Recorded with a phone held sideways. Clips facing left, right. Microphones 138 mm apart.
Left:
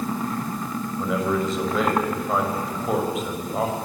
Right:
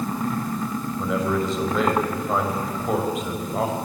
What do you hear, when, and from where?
1.0 s a man speaking: centre (ahead or behind), 5.5 m